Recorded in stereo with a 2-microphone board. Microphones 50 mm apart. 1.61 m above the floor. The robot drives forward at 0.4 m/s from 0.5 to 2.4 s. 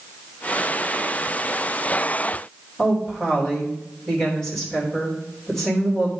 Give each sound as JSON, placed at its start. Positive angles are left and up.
{"t": 2.8, "sound": "a woman speaking", "side_deg": 15, "distance_m": 3.0}